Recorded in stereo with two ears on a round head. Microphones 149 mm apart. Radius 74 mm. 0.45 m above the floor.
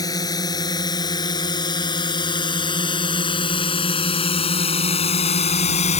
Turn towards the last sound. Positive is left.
turn(degrees=40)  # may be behind; listen again after turning